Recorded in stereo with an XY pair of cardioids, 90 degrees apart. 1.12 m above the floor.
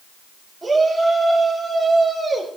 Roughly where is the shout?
Ahead right.